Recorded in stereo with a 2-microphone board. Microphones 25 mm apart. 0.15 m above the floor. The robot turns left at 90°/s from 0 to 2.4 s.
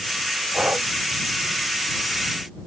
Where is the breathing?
60° right; by 0.9 s 90° right.